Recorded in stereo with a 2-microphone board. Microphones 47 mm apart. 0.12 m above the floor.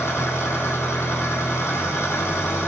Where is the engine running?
65° left (ahead or behind), 3.5 m.